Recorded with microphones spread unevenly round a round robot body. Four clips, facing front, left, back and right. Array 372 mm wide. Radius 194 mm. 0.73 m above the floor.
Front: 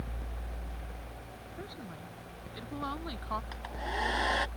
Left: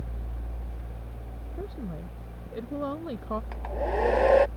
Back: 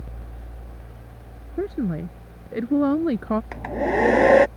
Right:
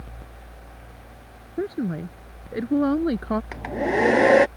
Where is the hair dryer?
145° right.